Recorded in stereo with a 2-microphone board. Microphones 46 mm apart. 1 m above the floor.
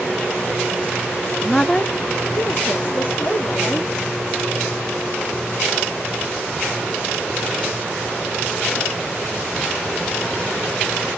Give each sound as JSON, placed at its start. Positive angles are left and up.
{"t": 1.4, "sound": "a woman speaking", "side_deg": 5, "distance_m": 0.6}